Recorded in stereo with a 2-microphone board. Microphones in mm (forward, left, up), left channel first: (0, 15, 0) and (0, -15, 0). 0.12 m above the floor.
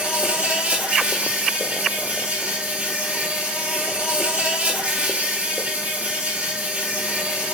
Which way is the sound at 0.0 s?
55° right (ahead or behind).